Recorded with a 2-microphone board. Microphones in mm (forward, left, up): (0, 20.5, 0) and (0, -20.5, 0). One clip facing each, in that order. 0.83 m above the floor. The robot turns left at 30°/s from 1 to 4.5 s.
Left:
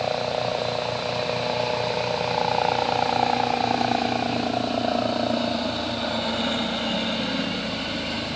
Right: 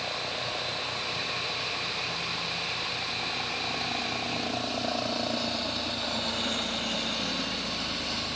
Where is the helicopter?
135° left; by 8.4 s 30° left.